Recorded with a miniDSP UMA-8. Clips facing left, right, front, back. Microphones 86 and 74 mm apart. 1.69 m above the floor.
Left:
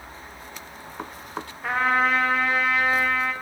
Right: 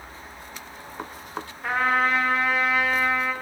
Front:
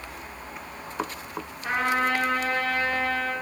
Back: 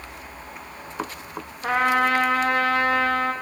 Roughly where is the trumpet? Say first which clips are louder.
Left 1 dB, back 5 dB; behind.